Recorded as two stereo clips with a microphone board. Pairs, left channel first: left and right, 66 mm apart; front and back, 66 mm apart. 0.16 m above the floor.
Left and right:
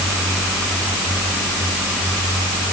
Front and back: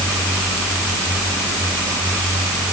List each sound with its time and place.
Only background noise.